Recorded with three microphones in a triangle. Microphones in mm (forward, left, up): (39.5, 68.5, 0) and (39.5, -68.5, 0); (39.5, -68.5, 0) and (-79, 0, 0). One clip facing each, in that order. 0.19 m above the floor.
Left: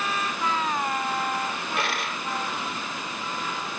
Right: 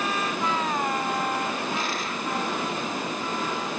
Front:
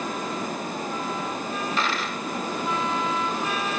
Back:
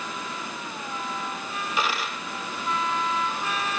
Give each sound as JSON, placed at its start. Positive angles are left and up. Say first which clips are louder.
{"t": 1.8, "sound": "a dropped coin", "louder": "even, back 3 dB", "azimuth_deg": 70, "distance_m": 2.5}